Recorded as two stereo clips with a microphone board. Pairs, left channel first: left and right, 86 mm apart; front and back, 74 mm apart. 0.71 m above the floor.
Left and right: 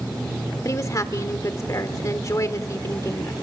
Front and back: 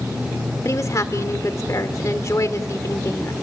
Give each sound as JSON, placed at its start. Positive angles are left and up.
{"t": 0.7, "sound": "a woman speaking", "azimuth_deg": 40, "distance_m": 1.6}